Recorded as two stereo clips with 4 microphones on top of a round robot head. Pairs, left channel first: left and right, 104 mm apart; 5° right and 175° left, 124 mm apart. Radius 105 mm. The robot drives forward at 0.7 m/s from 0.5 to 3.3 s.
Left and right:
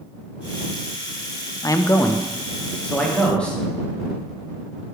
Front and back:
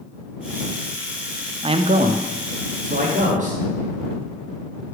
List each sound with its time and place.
1.6 s a man speaking: 140° left, 0.5 m; by 3.6 s 170° left, 1.5 m